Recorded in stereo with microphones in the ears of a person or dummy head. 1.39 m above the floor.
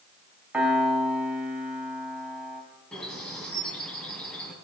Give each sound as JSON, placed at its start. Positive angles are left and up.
{"t": 0.5, "sound": "a piano", "side_deg": -5, "distance_m": 2.5}
{"t": 2.9, "sound": "a bird", "side_deg": 0, "distance_m": 3.5}